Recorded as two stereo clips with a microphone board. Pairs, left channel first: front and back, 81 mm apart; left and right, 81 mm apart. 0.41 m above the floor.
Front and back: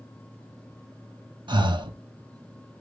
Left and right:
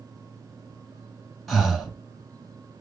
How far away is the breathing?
About 0.9 m.